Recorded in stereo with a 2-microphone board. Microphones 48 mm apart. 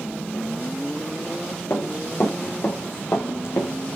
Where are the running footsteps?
55° left (ahead or behind), 7 m; by 3.7 s 65° left (ahead or behind), 6.5 m.